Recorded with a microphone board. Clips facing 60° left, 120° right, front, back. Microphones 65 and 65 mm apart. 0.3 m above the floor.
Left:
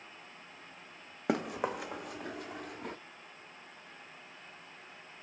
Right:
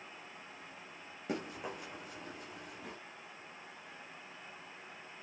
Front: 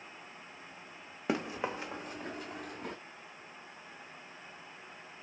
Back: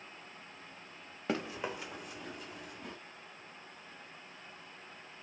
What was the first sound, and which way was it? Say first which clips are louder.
Running footsteps: left 8 dB, front 2 dB; 75° left.